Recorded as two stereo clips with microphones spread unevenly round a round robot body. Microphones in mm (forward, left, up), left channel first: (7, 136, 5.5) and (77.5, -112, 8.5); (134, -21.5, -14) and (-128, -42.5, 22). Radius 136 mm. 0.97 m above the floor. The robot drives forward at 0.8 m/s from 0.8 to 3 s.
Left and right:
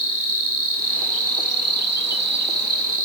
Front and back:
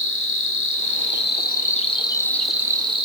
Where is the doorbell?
No doorbell in this recording.